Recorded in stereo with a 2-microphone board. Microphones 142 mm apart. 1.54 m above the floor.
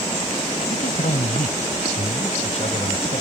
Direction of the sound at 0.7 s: 70° left (ahead or behind).